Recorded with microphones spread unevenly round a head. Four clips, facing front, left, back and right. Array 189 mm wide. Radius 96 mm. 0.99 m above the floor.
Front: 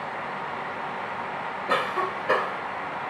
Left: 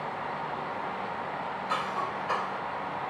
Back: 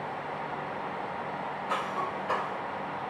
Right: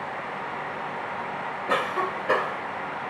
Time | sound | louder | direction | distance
1.7 | a cough | right 7 dB, front 7 dB | 50° right | ?